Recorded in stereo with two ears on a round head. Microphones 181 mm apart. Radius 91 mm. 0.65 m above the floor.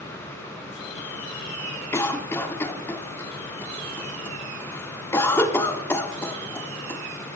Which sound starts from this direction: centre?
A cough, at 1.9 s.